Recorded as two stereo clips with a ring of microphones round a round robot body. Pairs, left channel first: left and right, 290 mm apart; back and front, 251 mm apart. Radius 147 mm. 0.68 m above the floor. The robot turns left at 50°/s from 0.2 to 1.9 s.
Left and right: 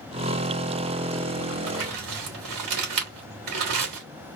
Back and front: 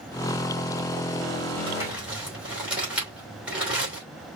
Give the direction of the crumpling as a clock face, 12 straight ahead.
2 o'clock.